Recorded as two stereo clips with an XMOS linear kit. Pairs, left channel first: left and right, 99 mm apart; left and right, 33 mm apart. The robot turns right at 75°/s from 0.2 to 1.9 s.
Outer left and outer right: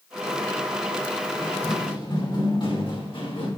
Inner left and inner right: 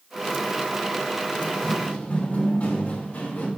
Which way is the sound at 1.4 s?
5° right (ahead or behind).